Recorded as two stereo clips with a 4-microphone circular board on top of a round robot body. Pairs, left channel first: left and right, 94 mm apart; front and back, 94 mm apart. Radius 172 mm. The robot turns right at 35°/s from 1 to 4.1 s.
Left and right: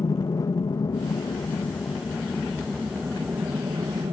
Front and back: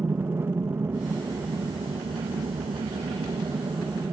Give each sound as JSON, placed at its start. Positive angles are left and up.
{"t": 0.0, "sound": "an aircraft", "azimuth_deg": 125}